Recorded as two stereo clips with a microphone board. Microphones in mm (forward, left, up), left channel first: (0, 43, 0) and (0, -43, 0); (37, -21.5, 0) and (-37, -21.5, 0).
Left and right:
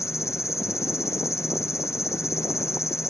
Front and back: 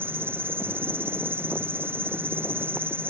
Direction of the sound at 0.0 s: 130° left.